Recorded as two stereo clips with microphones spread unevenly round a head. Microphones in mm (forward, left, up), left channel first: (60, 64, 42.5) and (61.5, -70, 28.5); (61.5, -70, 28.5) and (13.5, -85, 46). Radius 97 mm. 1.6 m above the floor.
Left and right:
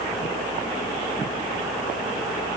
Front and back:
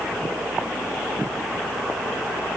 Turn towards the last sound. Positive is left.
No sound to turn to.